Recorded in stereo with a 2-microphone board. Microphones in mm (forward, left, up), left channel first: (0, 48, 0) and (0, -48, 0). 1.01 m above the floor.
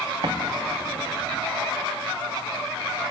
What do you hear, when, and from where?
0.2 s an explosion: 65° right (ahead or behind), 3 m